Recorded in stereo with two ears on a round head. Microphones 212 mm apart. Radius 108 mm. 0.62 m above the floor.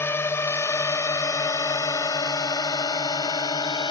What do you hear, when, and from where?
0.0 s a drone: 10° left (ahead or behind); by 3.9 s 20° left (ahead or behind)